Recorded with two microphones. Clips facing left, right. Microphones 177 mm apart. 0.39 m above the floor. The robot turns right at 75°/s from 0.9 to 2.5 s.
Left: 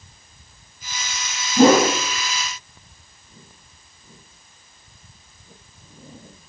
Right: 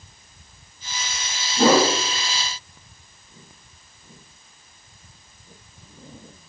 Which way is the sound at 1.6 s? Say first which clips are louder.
Left 4 dB; 55° left (ahead or behind).